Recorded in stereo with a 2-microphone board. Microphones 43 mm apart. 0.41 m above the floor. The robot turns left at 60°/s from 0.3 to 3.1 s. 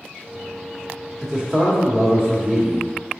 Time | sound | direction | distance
1.2 | a man speaking | 10° right (ahead or behind) | 1.3 m